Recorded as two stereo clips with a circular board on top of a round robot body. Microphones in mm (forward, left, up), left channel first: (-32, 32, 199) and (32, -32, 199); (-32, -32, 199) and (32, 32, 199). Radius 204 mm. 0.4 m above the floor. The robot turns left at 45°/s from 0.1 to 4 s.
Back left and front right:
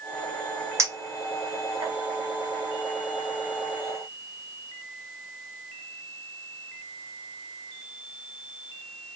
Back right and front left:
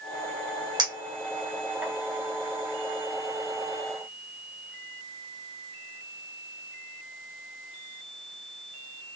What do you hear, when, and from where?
0.8 s a clink: 15° left, 1.3 m; by 1.9 s 40° right, 1.3 m